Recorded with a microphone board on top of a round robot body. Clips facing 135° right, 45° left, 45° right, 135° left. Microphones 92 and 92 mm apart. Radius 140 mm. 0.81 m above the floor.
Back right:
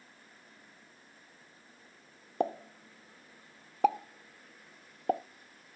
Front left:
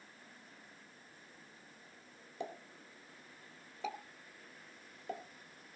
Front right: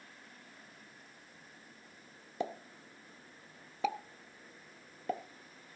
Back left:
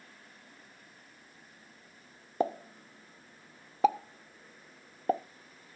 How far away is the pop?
About 0.7 m.